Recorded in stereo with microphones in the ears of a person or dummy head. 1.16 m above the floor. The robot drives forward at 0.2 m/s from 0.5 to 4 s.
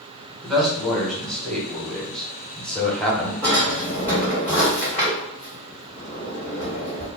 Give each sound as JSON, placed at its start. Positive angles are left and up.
{"t": 0.4, "sound": "a man speaking", "side_deg": 5, "distance_m": 1.4}
{"t": 3.4, "sound": "a drawer", "side_deg": 10, "distance_m": 1.7}